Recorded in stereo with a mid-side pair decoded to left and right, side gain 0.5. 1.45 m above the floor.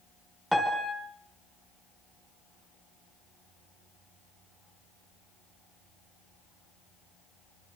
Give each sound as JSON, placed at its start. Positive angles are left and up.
{"t": 0.5, "sound": "a piano", "azimuth_deg": -5, "distance_m": 5.5}